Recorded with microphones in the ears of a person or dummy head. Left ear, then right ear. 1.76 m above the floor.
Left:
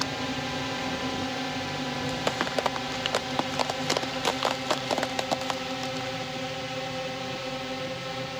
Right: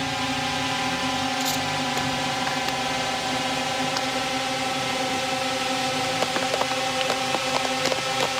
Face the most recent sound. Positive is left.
turn(degrees=-40)  # may be behind; listen again after turning